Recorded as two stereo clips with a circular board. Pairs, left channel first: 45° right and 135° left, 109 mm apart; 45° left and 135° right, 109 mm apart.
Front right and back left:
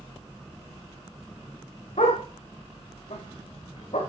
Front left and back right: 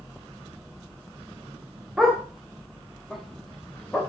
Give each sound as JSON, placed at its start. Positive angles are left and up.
{"t": 2.0, "sound": "a dog barking", "azimuth_deg": -50, "distance_m": 6.5}